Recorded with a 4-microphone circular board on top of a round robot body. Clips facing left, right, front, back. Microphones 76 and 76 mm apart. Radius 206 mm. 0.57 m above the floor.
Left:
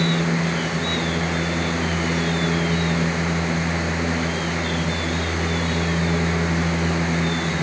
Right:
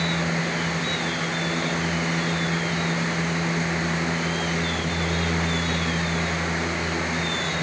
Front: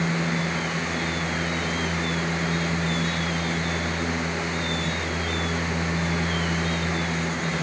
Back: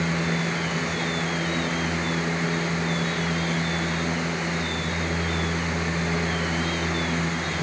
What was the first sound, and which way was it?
Only background noise.